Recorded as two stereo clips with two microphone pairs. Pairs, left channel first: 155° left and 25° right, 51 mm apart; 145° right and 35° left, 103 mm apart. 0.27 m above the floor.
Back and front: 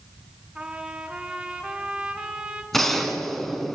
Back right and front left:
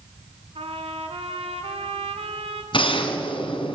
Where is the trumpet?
45° left, 2 m.